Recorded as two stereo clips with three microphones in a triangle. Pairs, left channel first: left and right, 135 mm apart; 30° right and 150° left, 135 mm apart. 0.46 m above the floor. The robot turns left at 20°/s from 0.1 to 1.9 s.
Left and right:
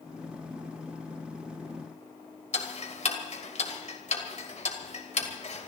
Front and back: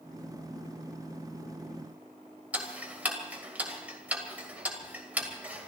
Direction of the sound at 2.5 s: 75° left.